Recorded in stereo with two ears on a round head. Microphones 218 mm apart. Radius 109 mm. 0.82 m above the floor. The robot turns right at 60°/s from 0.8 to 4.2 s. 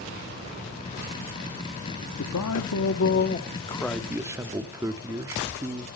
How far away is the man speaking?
About 1.4 m.